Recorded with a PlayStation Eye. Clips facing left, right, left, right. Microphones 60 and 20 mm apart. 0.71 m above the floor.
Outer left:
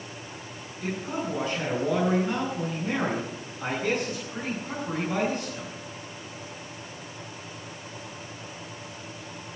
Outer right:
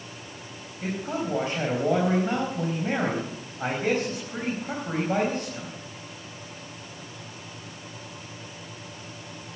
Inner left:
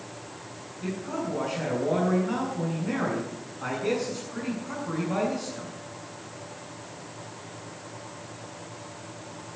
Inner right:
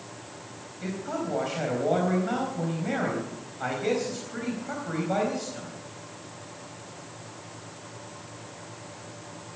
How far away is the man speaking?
About 4.5 m.